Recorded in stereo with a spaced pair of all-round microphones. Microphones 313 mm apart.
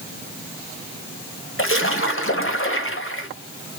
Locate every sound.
1.6 s a splash: 45° left (ahead or behind), 1.6 m